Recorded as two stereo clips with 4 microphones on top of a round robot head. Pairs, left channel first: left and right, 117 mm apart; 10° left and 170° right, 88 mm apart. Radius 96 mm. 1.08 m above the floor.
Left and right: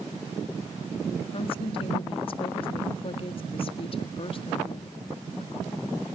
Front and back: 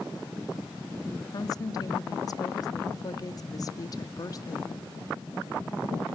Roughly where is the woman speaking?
Ahead left.